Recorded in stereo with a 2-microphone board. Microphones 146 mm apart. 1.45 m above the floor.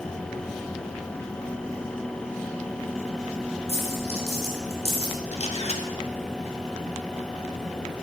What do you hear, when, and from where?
3.7 s a dropped coin: 50° right (ahead or behind), 2.5 m
5.3 s a camera shutter: 50° left (ahead or behind), 1.2 m